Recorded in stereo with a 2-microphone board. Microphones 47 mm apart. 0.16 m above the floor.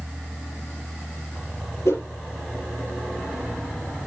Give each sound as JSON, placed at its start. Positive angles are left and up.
{"t": 1.9, "sound": "a whoosh", "side_deg": 70, "distance_m": 5.0}